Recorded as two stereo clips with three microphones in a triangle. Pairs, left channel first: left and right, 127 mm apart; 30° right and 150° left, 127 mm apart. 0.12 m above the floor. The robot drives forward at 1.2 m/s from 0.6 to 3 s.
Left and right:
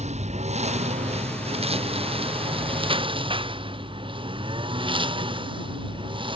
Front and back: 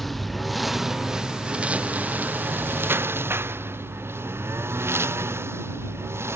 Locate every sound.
0.0 s a lawn mower: 120° right; by 6.4 s 140° right